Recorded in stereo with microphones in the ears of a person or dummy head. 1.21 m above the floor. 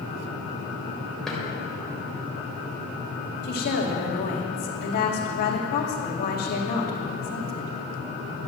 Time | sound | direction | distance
1.3 | a drawer | centre (ahead or behind) | 3.5 m
3.4 | a woman speaking | 45° left (ahead or behind) | 2 m